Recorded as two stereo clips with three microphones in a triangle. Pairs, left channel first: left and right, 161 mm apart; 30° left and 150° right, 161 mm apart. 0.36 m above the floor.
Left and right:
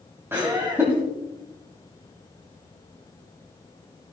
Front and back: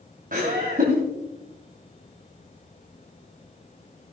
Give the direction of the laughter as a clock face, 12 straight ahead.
5 o'clock.